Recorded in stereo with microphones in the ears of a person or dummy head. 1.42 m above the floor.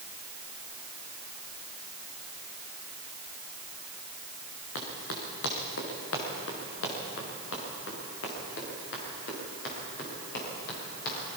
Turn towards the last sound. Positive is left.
turn(degrees=55)  # may be behind; listen again after turning